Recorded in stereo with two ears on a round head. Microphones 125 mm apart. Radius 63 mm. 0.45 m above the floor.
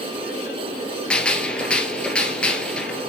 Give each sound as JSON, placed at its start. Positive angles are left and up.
{"t": 1.1, "sound": "a gunshot", "side_deg": 10, "distance_m": 2.0}